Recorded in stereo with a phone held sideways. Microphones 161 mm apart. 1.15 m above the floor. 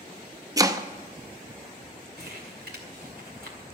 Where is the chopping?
20° right (ahead or behind), 0.6 m.